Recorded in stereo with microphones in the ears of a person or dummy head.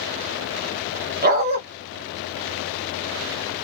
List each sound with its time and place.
1.2 s a dog barking: 50° right (ahead or behind), 1.6 m